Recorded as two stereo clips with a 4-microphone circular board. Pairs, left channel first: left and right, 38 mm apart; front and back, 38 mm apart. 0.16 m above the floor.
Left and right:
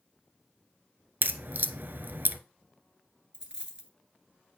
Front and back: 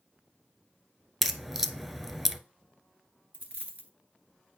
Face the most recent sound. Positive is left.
turn(degrees=-150)